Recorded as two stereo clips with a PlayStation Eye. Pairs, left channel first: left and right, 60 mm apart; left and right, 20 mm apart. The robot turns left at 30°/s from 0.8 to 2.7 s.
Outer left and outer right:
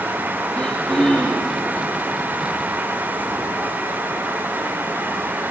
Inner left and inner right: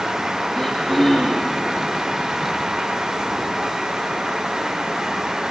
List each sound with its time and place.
0.5 s throat clearing: 15° left (ahead or behind), 9 m; by 1.6 s 5° right (ahead or behind), 9 m